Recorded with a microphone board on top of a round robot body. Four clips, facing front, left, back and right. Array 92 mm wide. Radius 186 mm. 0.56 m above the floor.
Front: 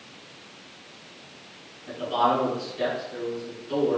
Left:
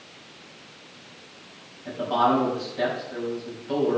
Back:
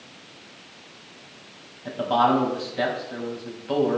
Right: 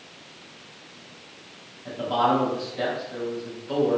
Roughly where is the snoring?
No snoring in this recording.